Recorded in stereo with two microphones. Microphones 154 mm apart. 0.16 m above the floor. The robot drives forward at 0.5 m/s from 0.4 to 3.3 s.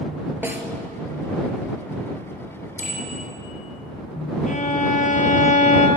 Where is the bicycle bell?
50° left (ahead or behind), 4.5 m.